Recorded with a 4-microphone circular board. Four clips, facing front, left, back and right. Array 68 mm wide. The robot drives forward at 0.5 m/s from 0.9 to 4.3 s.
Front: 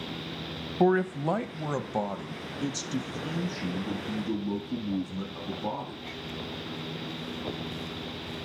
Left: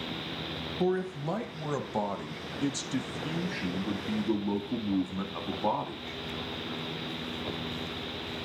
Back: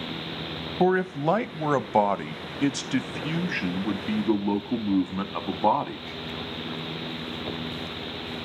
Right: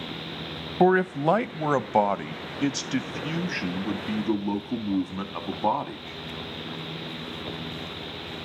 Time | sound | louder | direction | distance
0.8 | a man speaking | right 10 dB, back 2 dB | 100° right | 0.7 m